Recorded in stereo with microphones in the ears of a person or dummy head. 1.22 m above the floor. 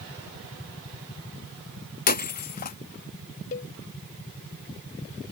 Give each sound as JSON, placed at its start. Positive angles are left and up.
{"t": 2.1, "sound": "breaking glass", "side_deg": 40}
{"t": 3.5, "sound": "a cowbell", "side_deg": 40}